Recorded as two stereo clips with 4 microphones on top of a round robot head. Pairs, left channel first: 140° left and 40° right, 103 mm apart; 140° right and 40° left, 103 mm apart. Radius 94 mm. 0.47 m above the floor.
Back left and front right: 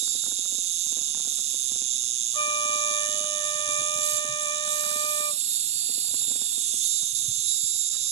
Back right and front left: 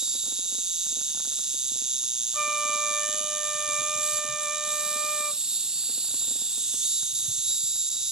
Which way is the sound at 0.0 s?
45° right.